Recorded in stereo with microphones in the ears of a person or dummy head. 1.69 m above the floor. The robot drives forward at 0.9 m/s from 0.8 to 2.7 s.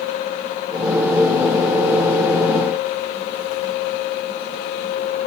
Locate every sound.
Only background noise.